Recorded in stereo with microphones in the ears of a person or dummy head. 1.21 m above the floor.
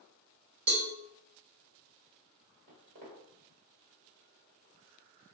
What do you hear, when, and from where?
0.7 s a cowbell: 60° right (ahead or behind), 0.8 m
2.7 s footsteps: 45° right (ahead or behind), 1.6 m